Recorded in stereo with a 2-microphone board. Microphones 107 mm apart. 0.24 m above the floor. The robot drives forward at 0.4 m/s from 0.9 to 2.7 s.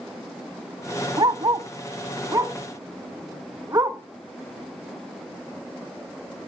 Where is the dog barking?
50° right (ahead or behind), 0.7 m; by 4.0 s 30° right (ahead or behind), 1.0 m.